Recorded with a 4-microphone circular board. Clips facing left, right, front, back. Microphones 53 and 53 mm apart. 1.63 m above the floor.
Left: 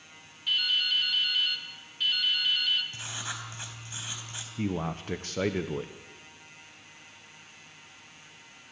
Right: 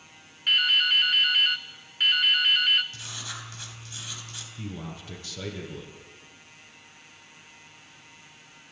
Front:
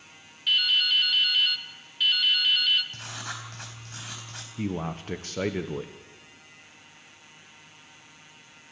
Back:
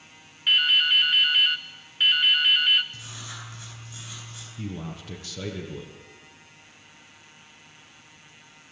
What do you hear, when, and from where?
0.5 s dripping: 125° right, 1.2 m
2.9 s writing: 25° left, 4 m
4.6 s a man speaking: 45° left, 1.0 m